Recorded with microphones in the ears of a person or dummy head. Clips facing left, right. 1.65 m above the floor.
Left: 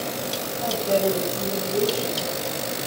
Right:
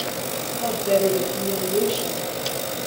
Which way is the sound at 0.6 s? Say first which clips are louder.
Right 2 dB; 65° right (ahead or behind).